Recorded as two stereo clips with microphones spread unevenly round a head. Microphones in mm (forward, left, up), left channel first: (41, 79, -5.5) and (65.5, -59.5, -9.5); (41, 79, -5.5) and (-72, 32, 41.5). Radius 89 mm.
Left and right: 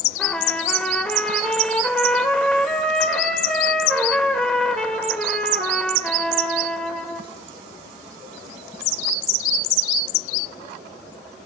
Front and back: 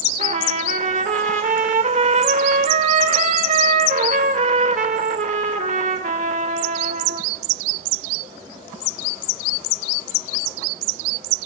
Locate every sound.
0.2 s a trumpet: 175° right, 2 m